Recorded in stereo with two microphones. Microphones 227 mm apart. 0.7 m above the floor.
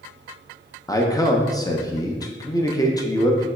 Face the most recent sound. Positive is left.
turn(degrees=15)  # may be behind; listen again after turning